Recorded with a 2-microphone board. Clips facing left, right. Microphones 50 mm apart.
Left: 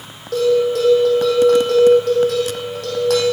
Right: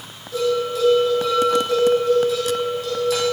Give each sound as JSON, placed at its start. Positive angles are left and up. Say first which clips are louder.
{"t": 0.3, "sound": "a bell", "louder": "left 6 dB", "side_deg": 60, "distance_m": 4.0}